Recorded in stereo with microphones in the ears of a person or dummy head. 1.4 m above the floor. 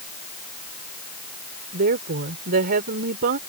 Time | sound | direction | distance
1.7 | a woman speaking | 50° right (ahead or behind) | ?